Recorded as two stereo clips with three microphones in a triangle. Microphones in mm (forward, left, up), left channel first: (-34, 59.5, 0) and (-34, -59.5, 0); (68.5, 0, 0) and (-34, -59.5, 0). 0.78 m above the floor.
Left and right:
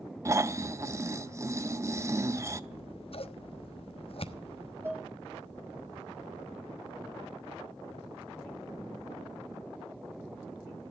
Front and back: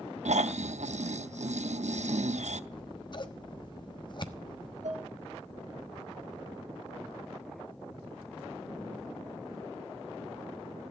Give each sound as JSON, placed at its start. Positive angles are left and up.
{"t": 0.2, "sound": "snoring", "azimuth_deg": -155, "distance_m": 0.8}
{"t": 2.7, "sound": "scissors", "azimuth_deg": 70, "distance_m": 1.2}
{"t": 4.8, "sound": "dishes clattering", "azimuth_deg": -160, "distance_m": 4.0}